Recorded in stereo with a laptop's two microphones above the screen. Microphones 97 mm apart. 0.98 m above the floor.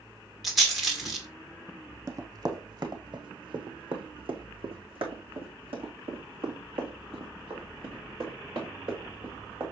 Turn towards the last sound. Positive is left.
turn(degrees=-60)  # may be behind; listen again after turning